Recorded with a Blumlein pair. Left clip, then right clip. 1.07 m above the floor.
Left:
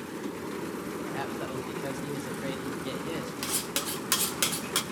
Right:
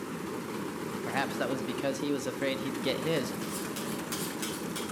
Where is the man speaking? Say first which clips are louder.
Right 6 dB; 65° right, 0.9 m.